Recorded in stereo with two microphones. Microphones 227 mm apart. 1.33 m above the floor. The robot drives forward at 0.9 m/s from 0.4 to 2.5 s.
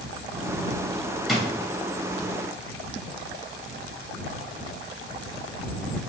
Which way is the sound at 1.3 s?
Centre (ahead or behind).